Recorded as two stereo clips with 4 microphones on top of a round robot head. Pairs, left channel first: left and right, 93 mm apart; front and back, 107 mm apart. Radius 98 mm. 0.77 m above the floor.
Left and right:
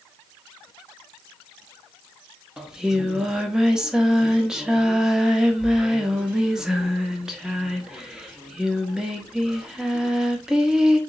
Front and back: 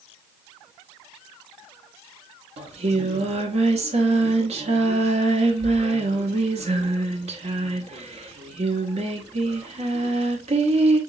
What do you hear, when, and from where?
2.6 s singing: 175° right, 1.0 m